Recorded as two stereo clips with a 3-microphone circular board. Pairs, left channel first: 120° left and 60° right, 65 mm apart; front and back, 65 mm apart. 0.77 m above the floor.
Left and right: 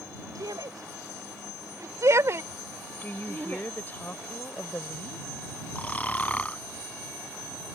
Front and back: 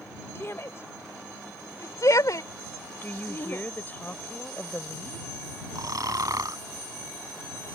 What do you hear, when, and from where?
0.3 s a shout: 50° right; by 3.6 s 5° left
3.0 s a woman speaking: 60° left
5.8 s snoring: 175° right